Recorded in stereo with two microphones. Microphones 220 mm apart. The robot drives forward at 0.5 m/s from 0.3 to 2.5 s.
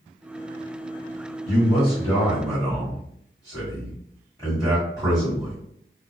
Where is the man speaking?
20° left (ahead or behind), 1.1 m; by 5.6 s 15° left (ahead or behind), 1.6 m.